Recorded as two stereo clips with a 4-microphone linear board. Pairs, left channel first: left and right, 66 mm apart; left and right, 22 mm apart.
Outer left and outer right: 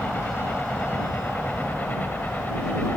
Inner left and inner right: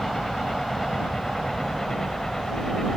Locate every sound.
0.0 s a helicopter: 25° left (ahead or behind)